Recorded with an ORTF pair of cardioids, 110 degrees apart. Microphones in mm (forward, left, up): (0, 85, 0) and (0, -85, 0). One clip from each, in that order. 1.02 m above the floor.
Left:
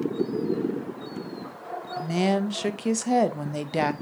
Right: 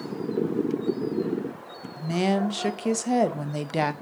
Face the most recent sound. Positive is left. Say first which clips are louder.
# even
turn(degrees=0)